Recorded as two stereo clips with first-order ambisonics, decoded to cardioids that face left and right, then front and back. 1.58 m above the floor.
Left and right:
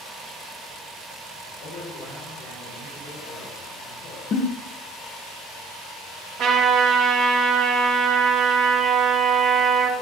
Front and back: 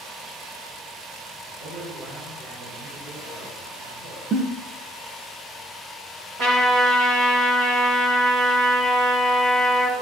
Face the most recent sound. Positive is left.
turn(degrees=-130)